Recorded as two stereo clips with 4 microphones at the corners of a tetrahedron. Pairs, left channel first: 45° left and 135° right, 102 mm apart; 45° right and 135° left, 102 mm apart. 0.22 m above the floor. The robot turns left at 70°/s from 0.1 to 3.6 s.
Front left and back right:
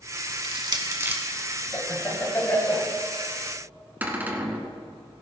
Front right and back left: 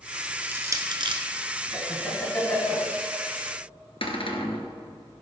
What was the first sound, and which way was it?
Crushing, 150° right.